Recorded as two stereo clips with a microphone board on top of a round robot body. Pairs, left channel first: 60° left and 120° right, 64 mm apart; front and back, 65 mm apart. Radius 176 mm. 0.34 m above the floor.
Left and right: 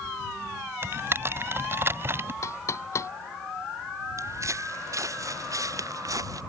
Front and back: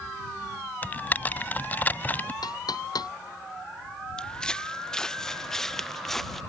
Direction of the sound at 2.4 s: 15° left.